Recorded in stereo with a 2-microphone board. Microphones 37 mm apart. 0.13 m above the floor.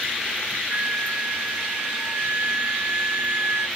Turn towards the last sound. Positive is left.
turn(degrees=-70)  # may be behind; listen again after turning